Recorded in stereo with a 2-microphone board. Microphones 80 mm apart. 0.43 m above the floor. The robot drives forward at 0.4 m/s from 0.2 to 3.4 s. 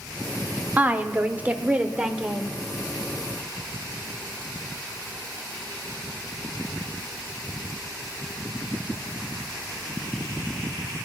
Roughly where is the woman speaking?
Right.